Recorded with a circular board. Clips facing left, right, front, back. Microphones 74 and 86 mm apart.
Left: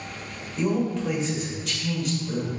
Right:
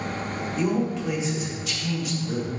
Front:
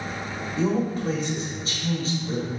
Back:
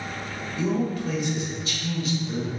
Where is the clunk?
No clunk in this recording.